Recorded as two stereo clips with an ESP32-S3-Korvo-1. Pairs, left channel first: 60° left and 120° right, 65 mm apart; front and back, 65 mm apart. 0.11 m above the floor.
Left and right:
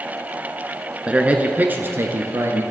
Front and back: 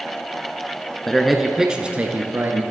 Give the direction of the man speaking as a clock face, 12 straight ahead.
3 o'clock.